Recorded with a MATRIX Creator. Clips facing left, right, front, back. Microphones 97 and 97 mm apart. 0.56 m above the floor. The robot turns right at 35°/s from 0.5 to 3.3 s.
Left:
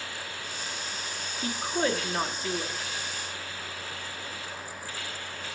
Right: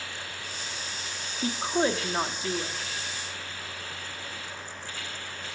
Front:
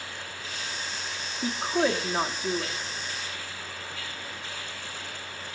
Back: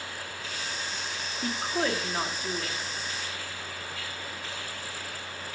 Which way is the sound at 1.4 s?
70° right.